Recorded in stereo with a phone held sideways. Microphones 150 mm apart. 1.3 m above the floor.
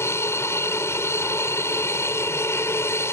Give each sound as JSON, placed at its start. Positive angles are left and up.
{"t": 0.0, "sound": "an aircraft", "side_deg": 15}